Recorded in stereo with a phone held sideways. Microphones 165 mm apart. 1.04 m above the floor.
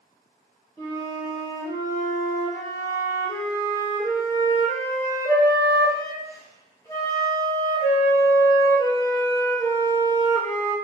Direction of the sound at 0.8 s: 20° left (ahead or behind).